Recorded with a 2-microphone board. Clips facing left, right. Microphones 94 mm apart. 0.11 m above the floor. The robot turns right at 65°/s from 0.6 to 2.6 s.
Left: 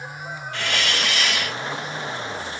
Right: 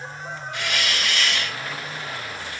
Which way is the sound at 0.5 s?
15° right (ahead or behind).